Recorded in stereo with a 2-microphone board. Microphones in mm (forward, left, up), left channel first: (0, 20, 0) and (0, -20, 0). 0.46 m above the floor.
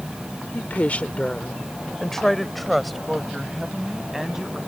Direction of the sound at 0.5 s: 45° left (ahead or behind).